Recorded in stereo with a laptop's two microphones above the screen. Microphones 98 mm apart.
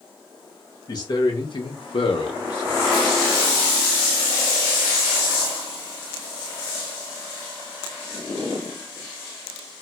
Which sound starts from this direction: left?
A man speaking, at 0.9 s.